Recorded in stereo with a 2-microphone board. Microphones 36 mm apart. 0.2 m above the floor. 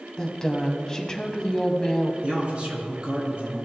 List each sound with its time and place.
0.2 s a woman speaking: 15° left (ahead or behind), 1.1 m
2.2 s a man speaking: 35° right (ahead or behind), 2.5 m